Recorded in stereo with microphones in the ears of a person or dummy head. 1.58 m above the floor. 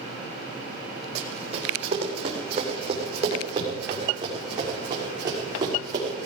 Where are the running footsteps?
40° right (ahead or behind), 4.5 m; by 6.3 s 25° right (ahead or behind), 7.5 m.